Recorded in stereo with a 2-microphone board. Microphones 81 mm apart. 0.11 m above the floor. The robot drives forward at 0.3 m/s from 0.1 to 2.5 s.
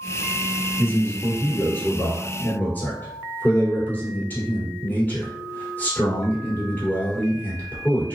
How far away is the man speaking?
About 1.6 m.